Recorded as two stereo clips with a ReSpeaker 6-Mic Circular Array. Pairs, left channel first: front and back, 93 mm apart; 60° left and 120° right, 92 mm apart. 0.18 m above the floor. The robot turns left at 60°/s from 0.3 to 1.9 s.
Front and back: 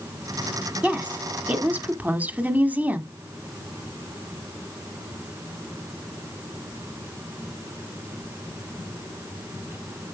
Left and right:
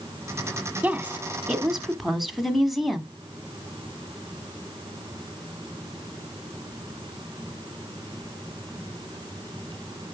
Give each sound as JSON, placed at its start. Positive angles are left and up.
{"t": 0.8, "sound": "a woman speaking", "azimuth_deg": -140, "distance_m": 1.3}